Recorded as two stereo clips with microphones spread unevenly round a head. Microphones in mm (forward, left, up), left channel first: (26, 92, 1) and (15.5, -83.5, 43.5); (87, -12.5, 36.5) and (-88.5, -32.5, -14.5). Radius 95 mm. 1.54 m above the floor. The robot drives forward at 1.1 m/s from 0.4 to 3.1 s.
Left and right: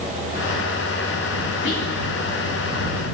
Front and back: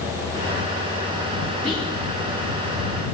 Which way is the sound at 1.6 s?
120° left.